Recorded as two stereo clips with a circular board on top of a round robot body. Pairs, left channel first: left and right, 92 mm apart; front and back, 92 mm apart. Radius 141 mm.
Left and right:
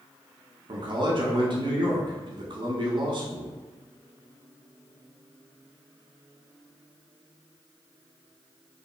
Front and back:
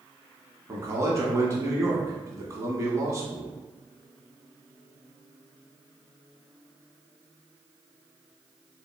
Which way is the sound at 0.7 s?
120° right.